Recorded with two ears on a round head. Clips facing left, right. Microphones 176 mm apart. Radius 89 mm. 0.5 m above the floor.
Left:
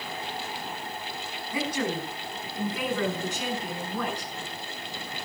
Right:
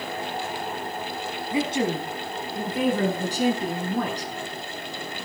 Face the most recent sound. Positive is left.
turn(degrees=-40)  # may be behind; listen again after turning